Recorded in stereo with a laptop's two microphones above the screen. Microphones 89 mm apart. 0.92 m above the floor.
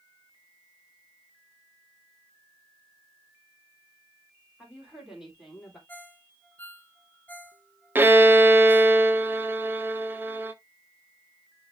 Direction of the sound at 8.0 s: 25° right (ahead or behind).